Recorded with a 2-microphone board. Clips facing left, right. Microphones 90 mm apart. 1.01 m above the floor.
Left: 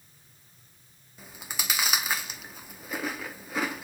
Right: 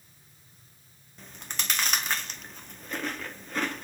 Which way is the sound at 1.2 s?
10° left (ahead or behind).